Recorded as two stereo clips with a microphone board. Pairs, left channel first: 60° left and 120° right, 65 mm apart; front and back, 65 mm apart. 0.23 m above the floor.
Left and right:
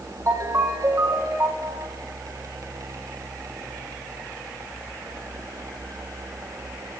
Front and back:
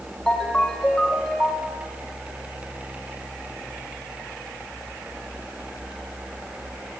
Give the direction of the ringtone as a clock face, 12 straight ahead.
3 o'clock.